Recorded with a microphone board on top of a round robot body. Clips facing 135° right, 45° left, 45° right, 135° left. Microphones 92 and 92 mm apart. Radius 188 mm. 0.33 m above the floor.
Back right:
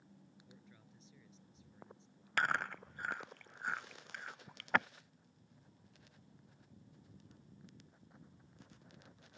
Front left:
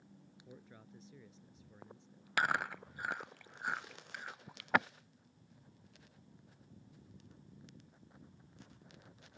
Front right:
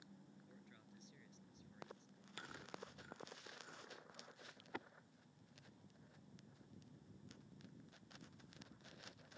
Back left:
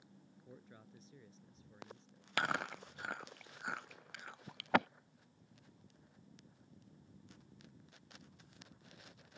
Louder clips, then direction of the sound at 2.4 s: Front left 1 dB, back left 16 dB; 130° left.